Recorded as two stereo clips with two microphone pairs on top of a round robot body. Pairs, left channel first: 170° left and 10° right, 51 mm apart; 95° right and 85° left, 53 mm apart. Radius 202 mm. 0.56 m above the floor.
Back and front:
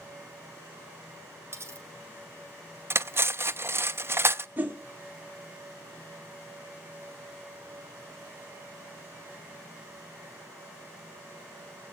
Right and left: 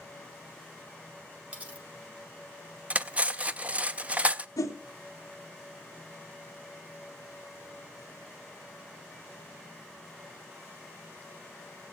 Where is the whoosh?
75° right, 0.5 m.